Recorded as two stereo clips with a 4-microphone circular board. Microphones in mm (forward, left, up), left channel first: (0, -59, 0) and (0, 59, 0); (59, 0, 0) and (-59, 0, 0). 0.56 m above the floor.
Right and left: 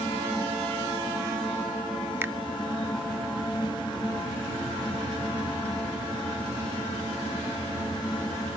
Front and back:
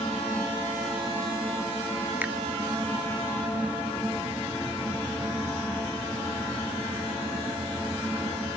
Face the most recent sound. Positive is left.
turn(degrees=130)